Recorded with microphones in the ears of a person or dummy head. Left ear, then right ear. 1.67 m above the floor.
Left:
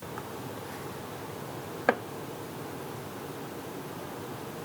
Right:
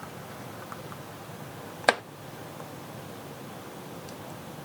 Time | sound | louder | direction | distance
1.9 | chopping | right 3 dB | 35° right (ahead or behind) | ?